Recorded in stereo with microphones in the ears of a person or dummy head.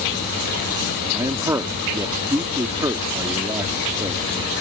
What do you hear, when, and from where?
1.1 s a man speaking: 20° right (ahead or behind)